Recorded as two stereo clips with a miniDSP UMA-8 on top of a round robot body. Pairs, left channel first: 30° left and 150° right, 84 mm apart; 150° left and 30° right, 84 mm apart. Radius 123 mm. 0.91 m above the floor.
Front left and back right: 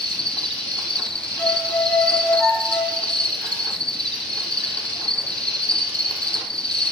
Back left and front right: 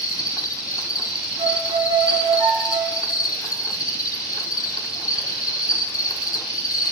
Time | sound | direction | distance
0.0 | an insect | 110° left | 1.5 m
1.4 | a violin | 45° right | 7 m